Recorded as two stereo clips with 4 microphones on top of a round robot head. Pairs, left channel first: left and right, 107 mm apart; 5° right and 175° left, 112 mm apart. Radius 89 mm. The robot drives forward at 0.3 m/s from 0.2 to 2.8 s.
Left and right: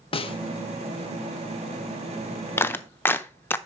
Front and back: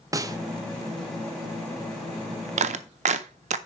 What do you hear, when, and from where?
0.1 s a snare drum: 115° left, 0.8 m; by 0.4 s 120° left, 0.8 m
2.6 s a clap: 160° left, 0.6 m